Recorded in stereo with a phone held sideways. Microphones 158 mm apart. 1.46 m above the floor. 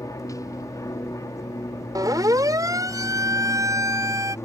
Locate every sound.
0.0 s an aircraft: 20° left (ahead or behind)
1.9 s a siren: 25° right (ahead or behind); by 4.3 s 20° right (ahead or behind)